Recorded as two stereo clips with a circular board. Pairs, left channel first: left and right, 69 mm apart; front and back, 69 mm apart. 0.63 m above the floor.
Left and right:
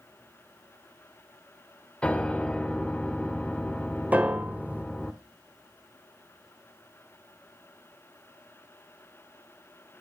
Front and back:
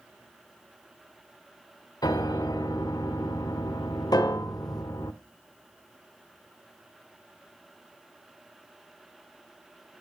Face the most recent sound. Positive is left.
turn(degrees=-20)